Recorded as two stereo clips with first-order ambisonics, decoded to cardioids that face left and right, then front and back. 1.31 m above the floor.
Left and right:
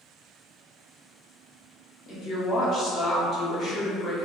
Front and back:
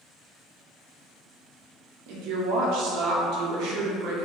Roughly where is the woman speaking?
Behind left.